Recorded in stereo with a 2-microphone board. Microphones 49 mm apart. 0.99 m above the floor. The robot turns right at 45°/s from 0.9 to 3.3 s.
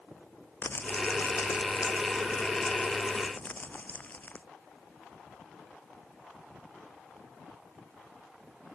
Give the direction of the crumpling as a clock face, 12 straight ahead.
11 o'clock.